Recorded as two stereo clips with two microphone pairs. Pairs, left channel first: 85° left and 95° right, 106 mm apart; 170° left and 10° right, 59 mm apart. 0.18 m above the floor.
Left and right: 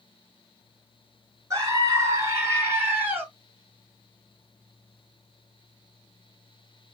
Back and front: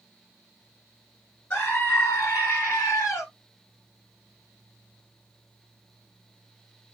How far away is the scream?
About 2.5 m.